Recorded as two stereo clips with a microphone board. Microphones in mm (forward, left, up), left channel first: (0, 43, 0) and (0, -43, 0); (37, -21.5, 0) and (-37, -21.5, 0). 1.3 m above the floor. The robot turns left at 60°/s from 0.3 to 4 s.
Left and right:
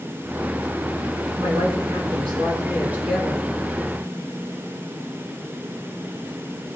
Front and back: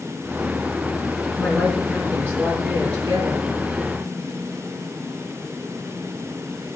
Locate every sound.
1.4 s a woman speaking: 65° right, 4.5 m; by 3.5 s 170° left, 4.5 m